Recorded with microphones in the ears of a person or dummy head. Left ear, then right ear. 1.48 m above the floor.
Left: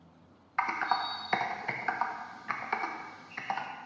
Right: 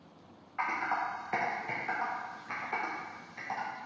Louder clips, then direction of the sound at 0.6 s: Left 2 dB; 50° left (ahead or behind).